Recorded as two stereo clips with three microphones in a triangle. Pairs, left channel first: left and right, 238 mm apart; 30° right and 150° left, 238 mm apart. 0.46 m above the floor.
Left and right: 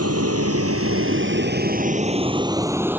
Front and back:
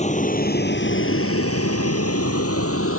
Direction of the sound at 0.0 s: 90° right.